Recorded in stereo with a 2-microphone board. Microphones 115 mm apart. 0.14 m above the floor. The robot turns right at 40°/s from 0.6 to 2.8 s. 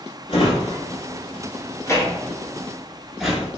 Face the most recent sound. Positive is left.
turn(degrees=0)  # may be behind; listen again after turning